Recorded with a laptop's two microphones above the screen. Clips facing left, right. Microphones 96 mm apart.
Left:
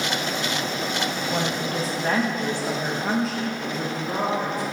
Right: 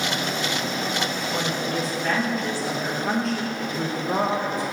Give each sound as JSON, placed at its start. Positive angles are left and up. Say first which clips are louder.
{"t": 1.3, "sound": "a woman speaking", "louder": "even", "side_deg": 50, "distance_m": 1.4}